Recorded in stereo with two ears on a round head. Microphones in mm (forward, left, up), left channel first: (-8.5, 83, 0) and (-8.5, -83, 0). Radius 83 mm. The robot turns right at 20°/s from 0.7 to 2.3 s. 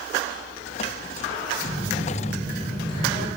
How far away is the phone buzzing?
About 4 m.